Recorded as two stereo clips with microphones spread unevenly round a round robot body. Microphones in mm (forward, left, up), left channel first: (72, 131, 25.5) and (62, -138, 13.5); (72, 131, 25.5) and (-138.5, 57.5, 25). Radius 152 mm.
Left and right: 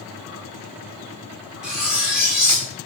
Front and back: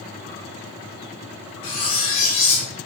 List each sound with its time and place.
1.6 s cutlery clinking: 5° right, 1.4 m